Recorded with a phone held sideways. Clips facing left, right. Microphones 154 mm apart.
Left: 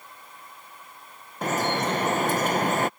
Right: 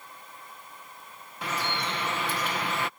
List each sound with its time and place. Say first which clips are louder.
1.4 s dripping: left 7 dB; 45° left (ahead or behind)